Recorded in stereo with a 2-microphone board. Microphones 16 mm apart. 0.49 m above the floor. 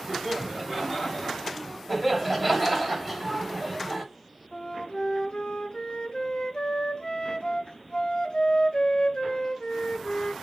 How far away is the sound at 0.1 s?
About 1.3 m.